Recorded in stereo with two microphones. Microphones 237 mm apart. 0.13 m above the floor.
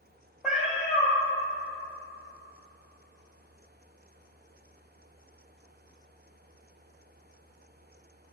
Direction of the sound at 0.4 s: Centre (ahead or behind).